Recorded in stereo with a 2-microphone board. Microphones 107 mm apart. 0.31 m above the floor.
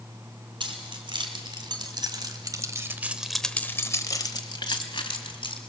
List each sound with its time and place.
0.6 s keys jangling: 50° right (ahead or behind), 2.5 m; by 5.6 s 55° left (ahead or behind), 2.5 m